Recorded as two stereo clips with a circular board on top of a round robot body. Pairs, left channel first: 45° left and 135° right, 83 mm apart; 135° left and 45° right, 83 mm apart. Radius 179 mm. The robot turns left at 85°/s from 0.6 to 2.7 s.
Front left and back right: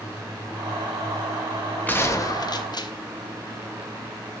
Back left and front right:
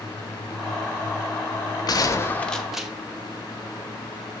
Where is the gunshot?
110° left, 1.2 m; by 2.9 s 40° left, 1.2 m.